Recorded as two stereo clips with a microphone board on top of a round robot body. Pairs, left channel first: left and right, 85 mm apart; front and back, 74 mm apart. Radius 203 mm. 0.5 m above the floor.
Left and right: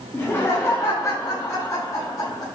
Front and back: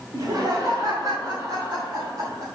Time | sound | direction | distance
0.1 | laughter | 150° left | 2.5 m